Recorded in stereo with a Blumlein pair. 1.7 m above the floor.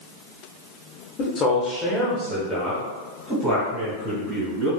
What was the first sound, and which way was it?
A man speaking, 30° left.